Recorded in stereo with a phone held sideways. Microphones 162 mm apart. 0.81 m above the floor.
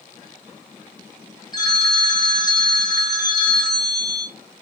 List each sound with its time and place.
1.5 s a phone ringing: 25° left (ahead or behind), 0.8 m